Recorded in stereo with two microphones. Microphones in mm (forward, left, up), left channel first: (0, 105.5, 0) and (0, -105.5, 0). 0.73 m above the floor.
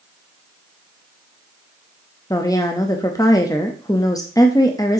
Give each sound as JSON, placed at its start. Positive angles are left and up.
{"t": 2.3, "sound": "a woman speaking", "side_deg": 15, "distance_m": 0.7}